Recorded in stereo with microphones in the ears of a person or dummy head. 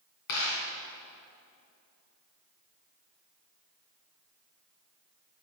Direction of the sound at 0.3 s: 50° left (ahead or behind).